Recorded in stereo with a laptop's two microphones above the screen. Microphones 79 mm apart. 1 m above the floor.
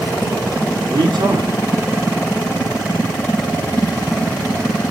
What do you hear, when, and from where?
0.9 s a man speaking: 75° right (ahead or behind), 2.5 m